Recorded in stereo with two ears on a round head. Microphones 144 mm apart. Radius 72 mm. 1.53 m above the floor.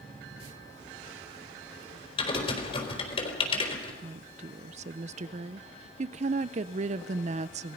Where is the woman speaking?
45° right (ahead or behind), 0.6 m.